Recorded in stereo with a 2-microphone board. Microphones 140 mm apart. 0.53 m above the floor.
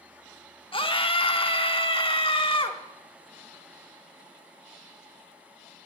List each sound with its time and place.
0.7 s a scream: 40° left (ahead or behind), 1.0 m